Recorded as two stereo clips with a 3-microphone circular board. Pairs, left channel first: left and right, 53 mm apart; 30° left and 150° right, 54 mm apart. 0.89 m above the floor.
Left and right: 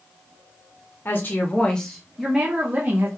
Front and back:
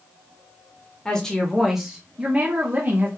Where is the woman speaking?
100° left, 1.0 m; by 3.1 s 120° right, 1.1 m.